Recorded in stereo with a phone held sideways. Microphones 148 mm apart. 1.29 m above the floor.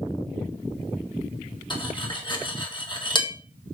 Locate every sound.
1.7 s cutlery clinking: 30° left (ahead or behind), 1.8 m